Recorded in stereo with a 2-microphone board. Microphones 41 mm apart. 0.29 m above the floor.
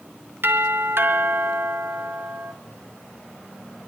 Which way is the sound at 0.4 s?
60° right (ahead or behind).